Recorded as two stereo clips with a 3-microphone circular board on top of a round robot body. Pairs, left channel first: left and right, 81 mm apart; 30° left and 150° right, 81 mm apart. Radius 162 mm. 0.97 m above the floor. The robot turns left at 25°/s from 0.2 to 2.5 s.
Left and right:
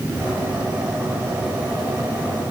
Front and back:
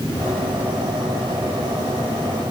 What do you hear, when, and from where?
Only background noise.